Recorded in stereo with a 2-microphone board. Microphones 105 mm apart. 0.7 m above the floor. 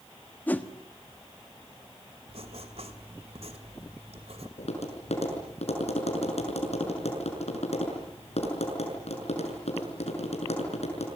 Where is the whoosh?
15° left (ahead or behind), 1.3 m.